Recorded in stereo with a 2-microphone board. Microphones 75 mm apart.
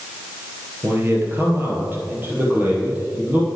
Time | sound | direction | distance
0.8 | a man speaking | 35° right (ahead or behind) | 2.5 m